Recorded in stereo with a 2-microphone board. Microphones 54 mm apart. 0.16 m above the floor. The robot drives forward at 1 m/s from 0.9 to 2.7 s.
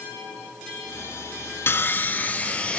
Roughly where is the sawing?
Left.